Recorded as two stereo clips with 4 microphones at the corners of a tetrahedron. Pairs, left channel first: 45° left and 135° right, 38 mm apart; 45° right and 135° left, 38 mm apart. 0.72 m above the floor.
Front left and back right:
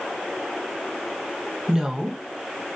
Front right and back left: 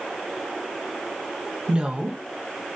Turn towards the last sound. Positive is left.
turn(degrees=175)